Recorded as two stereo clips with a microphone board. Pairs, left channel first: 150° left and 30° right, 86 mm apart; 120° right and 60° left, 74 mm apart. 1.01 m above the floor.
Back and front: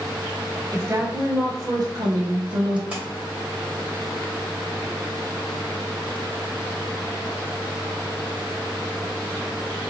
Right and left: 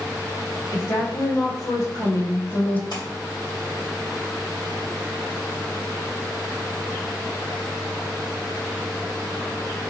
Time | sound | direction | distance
0.7 | a woman speaking | 85° right | 1.7 m
2.9 | a splash | 105° right | 2 m